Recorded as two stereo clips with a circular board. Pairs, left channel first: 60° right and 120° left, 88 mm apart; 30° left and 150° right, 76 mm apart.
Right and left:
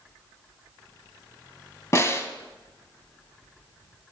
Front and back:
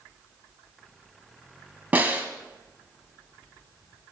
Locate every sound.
1.9 s a snare drum: 95° right, 1.4 m